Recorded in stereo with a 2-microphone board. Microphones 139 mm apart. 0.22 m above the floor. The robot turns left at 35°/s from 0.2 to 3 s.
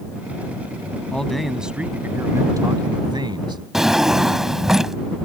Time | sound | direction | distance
1.1 | a man speaking | 10° left | ?
3.7 | a drawer | 5° right (ahead or behind) | ?